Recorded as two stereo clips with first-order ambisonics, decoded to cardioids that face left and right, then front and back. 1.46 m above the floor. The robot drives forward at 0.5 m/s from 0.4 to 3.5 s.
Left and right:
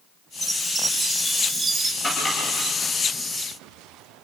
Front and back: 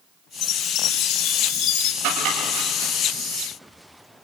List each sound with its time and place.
0.4 s a chime: 10° right, 1.7 m; by 1.9 s 15° right, 1.1 m
2.0 s chopping: 160° left, 10 m